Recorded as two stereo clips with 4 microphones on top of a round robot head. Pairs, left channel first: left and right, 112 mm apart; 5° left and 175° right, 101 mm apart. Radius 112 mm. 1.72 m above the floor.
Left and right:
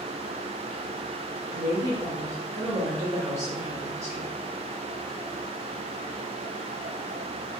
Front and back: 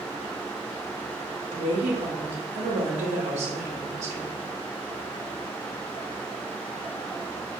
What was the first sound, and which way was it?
A woman speaking, 160° right.